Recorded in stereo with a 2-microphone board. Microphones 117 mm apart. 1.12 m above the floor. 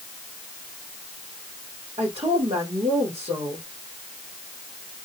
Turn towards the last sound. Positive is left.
turn(degrees=-65)  # may be behind; listen again after turning